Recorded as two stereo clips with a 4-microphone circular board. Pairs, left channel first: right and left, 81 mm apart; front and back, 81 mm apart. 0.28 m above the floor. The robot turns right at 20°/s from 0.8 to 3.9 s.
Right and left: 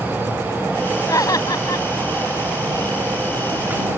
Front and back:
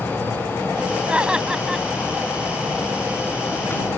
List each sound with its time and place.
1.1 s laughter: 110° right; by 1.9 s 95° right